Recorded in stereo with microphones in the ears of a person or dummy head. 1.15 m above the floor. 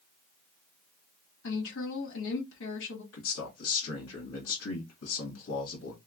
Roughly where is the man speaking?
Left.